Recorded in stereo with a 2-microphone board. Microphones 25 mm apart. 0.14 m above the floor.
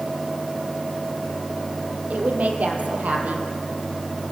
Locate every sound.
2.1 s a woman speaking: 70° right (ahead or behind), 4 m